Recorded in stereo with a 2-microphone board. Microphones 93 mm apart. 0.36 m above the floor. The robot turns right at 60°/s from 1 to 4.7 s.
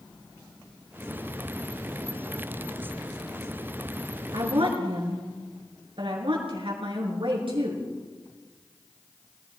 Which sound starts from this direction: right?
A woman speaking, at 4.3 s.